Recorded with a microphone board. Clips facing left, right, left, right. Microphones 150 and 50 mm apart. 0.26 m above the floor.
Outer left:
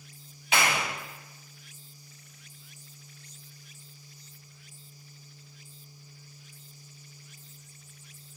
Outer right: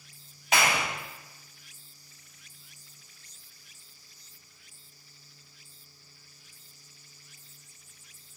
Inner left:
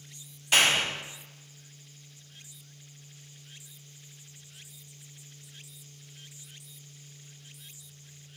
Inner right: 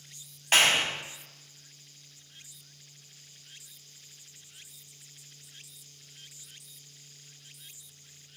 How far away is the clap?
About 1.7 m.